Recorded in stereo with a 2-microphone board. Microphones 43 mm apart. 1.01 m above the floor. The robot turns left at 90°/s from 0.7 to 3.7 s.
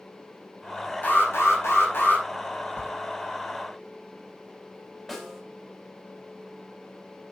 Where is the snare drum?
5° right (ahead or behind), 5 m.